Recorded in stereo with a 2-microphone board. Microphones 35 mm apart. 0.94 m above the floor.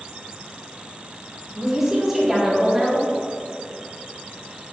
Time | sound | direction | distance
1.6 | a woman speaking | 10° right (ahead or behind) | 2.5 m